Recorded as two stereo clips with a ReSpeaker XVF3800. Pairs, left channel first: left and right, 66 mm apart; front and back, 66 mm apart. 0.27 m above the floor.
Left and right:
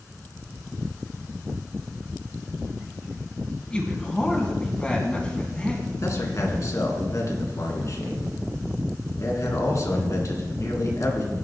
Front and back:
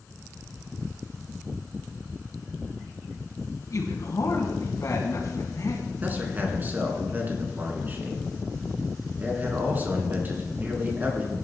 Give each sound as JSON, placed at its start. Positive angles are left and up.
{"t": 3.7, "sound": "a man speaking", "azimuth_deg": 20, "distance_m": 2.5}
{"t": 6.0, "sound": "a man speaking", "azimuth_deg": 120, "distance_m": 2.5}